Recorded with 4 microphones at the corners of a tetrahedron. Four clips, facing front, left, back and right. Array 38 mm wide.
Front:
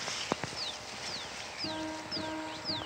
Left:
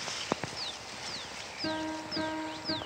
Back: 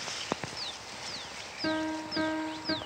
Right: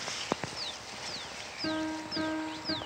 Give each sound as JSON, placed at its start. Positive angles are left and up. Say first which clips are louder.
{"t": 1.6, "sound": "a piano", "louder": "right 1 dB, back 7 dB", "azimuth_deg": -170, "distance_m": 0.7}